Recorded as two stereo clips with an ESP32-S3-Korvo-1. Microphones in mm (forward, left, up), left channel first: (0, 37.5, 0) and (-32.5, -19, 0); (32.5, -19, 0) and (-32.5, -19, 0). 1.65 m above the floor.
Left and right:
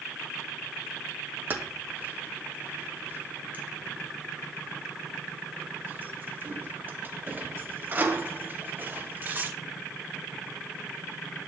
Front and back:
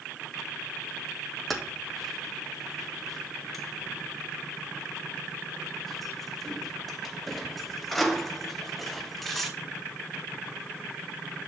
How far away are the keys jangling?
About 0.7 m.